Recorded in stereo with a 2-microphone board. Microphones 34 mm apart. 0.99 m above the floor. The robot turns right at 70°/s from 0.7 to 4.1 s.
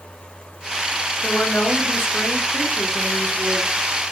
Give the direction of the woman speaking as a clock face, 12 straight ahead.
10 o'clock.